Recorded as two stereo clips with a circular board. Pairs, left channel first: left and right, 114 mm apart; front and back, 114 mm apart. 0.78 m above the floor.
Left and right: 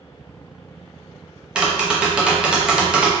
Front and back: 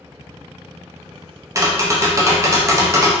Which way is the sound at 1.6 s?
165° right.